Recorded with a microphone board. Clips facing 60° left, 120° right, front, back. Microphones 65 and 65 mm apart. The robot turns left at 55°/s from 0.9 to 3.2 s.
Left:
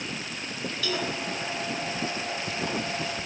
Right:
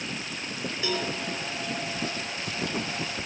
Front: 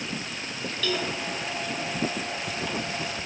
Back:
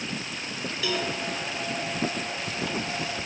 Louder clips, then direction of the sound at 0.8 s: Even, even; 115° right.